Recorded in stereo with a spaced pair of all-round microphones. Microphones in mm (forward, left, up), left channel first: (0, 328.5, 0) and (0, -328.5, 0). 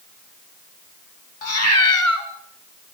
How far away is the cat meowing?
About 3 m.